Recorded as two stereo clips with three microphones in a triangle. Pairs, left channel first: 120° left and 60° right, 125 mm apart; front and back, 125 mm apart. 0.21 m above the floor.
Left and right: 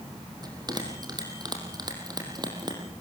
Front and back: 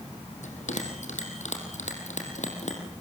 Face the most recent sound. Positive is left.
turn(degrees=-5)